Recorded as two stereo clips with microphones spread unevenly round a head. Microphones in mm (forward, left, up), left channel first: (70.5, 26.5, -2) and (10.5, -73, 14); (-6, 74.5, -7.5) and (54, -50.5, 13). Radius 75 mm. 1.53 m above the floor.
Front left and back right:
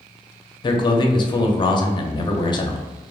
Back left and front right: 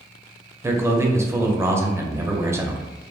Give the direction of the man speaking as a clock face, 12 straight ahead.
12 o'clock.